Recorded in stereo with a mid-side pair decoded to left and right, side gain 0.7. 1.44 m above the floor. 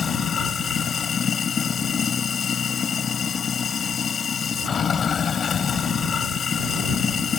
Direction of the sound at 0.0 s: 30° left.